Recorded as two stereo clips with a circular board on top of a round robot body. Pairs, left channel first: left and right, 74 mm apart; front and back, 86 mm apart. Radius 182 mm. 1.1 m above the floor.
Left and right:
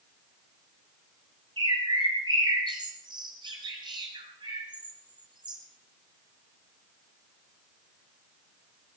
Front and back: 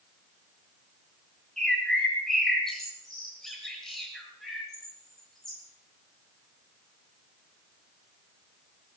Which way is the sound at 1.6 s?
85° right.